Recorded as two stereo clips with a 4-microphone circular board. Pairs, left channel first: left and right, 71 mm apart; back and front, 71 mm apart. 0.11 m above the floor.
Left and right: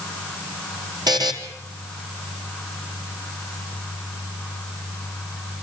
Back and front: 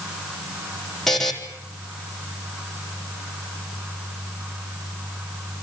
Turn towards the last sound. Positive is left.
turn(degrees=-95)